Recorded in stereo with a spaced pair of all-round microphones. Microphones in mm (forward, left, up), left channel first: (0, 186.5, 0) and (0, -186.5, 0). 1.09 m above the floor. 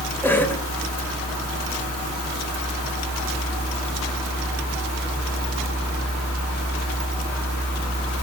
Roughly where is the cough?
Centre.